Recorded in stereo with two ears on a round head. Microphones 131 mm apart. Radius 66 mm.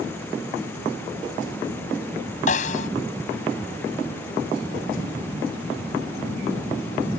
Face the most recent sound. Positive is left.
turn(degrees=50)  # may be behind; listen again after turning